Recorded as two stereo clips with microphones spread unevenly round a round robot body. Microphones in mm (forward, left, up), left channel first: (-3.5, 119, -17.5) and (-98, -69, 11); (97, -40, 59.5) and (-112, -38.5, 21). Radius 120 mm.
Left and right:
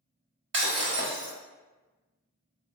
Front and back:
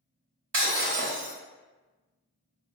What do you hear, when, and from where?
0.5 s breaking glass: 150° right, 0.8 m